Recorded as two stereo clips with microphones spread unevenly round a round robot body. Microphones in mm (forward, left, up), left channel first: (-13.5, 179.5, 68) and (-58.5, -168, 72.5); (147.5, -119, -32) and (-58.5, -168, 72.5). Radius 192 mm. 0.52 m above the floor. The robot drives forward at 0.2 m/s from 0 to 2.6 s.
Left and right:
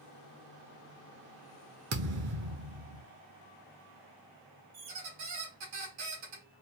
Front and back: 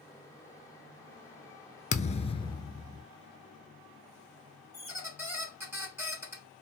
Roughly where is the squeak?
Right.